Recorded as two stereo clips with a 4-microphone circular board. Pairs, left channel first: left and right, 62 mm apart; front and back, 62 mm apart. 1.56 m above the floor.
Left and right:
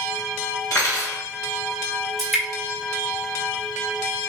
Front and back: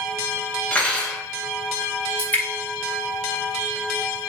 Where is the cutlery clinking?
70° left, 1.3 m.